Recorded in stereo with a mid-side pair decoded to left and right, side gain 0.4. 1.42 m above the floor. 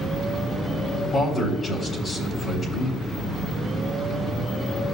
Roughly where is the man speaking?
Ahead left.